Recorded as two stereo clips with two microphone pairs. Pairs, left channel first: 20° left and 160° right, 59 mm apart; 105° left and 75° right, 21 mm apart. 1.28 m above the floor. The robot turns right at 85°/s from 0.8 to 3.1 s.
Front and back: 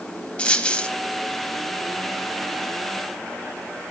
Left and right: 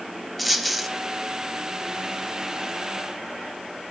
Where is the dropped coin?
20° left, 1.1 m; by 0.9 s 25° left, 1.1 m.